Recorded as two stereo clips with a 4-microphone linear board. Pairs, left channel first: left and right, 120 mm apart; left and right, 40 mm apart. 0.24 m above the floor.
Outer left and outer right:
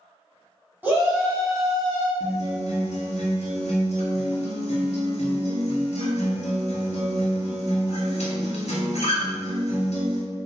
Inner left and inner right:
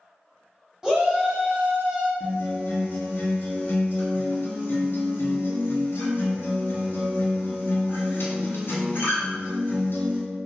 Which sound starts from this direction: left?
A guitar, at 2.2 s.